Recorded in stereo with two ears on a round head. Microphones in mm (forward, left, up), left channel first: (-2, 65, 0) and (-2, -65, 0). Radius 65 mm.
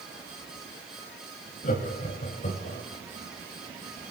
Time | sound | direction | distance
1.6 | laughter | 55° left (ahead or behind) | 5.5 m